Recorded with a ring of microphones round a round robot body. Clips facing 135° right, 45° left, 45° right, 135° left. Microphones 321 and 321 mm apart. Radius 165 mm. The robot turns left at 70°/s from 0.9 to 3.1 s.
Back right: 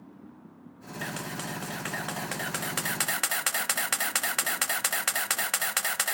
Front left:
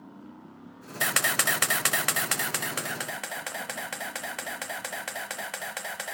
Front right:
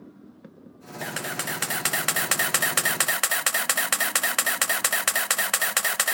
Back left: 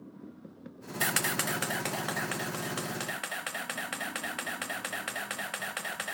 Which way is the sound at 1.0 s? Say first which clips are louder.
Front left 2 dB, front right 1 dB; 75° left.